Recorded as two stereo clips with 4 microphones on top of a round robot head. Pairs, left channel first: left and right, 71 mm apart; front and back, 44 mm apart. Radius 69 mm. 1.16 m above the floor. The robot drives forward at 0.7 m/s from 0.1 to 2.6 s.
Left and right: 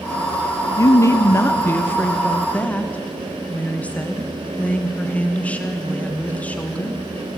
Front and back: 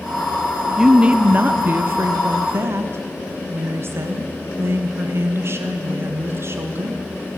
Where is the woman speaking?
105° left, 0.8 m; by 7.0 s 160° left, 1.6 m.